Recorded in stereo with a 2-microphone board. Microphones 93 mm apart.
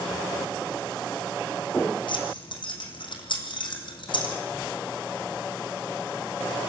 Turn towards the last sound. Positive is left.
turn(degrees=60)  # may be behind; listen again after turning